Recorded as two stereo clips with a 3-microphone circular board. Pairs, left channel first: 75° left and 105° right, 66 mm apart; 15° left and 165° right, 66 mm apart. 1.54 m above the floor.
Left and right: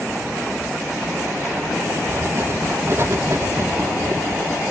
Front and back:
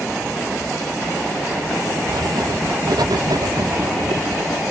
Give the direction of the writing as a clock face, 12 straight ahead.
5 o'clock.